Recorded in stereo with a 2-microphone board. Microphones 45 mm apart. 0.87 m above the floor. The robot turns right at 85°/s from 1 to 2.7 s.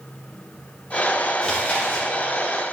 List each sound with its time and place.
1.4 s chewing: 15° left (ahead or behind), 1.1 m; by 2.1 s 30° left (ahead or behind), 1.1 m